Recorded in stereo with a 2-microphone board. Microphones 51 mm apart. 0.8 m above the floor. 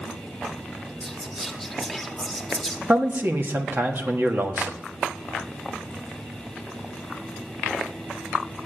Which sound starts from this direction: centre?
Whispering, at 1.0 s.